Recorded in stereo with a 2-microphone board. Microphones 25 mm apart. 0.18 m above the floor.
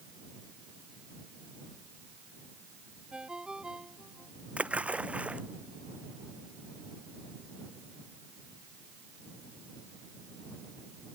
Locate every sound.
3.1 s a ringtone: 35° right (ahead or behind)
4.6 s a splash: 60° right (ahead or behind)